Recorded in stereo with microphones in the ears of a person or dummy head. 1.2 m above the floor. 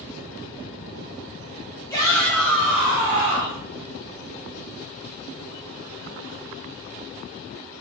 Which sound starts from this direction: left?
A shout, at 1.9 s.